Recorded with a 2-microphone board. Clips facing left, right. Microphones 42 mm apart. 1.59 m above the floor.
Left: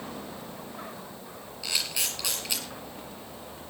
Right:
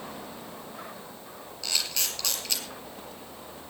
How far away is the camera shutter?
About 4.5 m.